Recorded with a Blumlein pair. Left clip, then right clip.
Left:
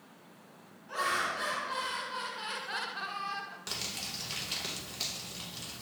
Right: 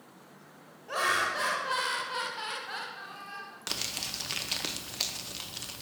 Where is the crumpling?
70° right, 0.5 m.